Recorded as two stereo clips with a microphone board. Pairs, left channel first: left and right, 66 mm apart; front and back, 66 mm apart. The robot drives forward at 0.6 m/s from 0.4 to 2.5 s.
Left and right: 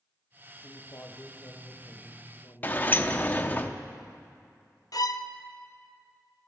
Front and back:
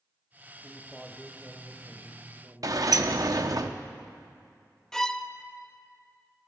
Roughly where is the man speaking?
Left.